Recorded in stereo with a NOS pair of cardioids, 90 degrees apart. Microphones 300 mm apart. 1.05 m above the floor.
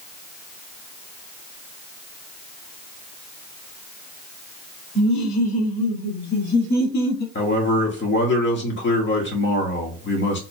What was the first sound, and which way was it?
Laughter, 65° left.